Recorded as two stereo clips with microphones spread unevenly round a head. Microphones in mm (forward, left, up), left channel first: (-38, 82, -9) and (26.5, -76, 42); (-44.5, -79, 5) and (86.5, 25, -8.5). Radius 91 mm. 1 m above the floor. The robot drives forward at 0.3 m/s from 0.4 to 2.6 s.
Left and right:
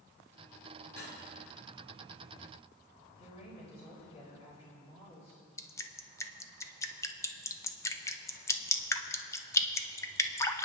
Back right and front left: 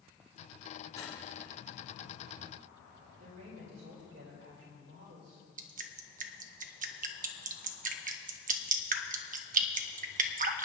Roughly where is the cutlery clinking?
Behind left.